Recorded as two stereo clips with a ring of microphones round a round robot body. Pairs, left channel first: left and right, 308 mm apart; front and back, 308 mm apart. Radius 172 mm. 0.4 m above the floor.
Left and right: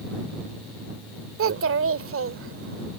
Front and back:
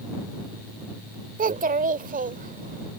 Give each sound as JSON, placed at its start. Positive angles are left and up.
{"t": 1.4, "sound": "a child speaking", "azimuth_deg": -125}